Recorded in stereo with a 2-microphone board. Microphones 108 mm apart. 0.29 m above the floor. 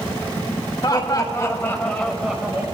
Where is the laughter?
40° left (ahead or behind), 1.5 m; by 2.6 s 20° right (ahead or behind), 1.0 m.